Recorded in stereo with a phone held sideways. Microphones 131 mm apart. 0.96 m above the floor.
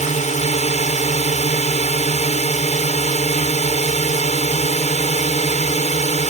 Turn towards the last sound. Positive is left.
turn(degrees=65)  # may be behind; listen again after turning